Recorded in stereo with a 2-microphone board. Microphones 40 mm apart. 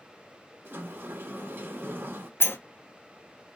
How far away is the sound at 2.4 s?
About 0.5 m.